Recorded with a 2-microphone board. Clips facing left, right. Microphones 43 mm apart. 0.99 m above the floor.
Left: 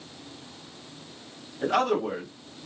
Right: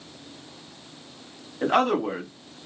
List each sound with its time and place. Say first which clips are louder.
1.6 s a man speaking: right 3 dB; 35° right (ahead or behind), 2 m